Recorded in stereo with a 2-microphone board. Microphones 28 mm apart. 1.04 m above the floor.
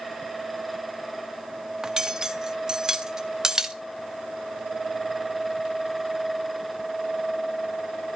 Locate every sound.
1.8 s cutlery clinking: 25° right (ahead or behind), 0.7 m